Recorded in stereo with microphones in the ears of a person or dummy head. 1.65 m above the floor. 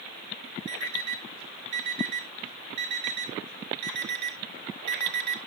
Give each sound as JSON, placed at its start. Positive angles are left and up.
{"t": 0.7, "sound": "an alarm clock", "side_deg": -60, "distance_m": 1.6}